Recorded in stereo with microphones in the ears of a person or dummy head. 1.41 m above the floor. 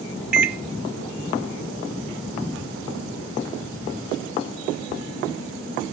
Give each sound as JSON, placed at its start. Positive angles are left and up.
{"t": 0.3, "sound": "a microwave", "side_deg": 0, "distance_m": 0.8}